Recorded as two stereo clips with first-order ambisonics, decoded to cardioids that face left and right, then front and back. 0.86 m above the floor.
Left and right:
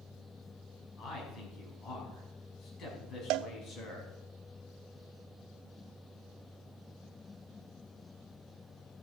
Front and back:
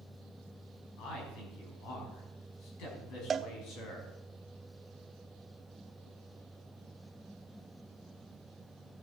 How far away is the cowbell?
About 0.5 m.